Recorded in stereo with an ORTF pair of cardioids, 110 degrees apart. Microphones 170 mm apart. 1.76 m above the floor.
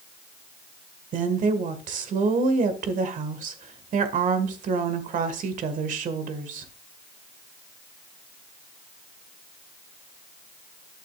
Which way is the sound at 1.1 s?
50° right.